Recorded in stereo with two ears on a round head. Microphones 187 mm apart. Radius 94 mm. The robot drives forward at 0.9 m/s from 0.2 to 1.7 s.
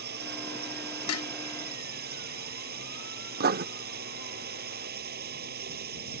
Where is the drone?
55° right (ahead or behind).